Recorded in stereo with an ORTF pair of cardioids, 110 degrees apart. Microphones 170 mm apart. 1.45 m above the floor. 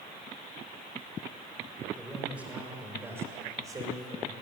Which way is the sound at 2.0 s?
5° right.